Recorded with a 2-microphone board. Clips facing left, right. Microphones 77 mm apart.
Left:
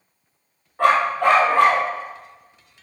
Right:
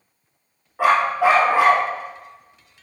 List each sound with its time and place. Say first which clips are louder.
0.8 s a dog barking: even; 5° right (ahead or behind), 3 m